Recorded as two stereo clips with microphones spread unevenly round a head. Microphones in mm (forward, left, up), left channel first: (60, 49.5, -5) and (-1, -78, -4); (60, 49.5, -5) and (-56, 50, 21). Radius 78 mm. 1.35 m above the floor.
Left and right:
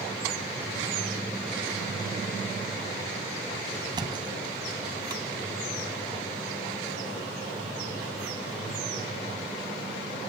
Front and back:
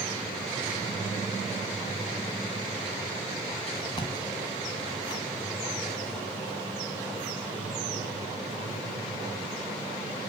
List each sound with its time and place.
4.0 s a thud: 65° right, 1.7 m